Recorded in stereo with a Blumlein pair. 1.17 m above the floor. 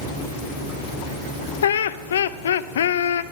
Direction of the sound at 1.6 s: 65° left.